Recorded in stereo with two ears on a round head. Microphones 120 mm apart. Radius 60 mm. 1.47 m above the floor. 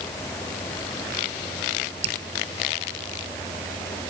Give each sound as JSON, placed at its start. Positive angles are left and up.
{"t": 2.0, "sound": "dripping", "side_deg": -50}